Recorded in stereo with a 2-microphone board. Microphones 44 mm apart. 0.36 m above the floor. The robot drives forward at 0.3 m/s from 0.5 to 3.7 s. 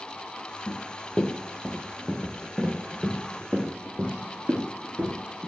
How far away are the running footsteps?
About 2.5 m.